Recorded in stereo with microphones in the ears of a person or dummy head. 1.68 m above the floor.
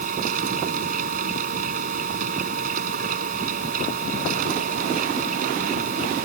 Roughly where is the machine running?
Right.